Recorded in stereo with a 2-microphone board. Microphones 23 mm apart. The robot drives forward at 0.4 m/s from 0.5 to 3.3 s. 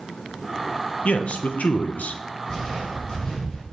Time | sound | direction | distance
1.1 | a man speaking | 55° left (ahead or behind) | 0.8 m
2.5 | footsteps | 20° left (ahead or behind) | 3.5 m